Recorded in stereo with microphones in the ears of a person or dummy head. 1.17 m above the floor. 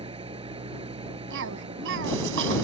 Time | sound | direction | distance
0.0 | an engine running | 25° right (ahead or behind) | ?
1.3 | a cough | 70° right (ahead or behind) | ?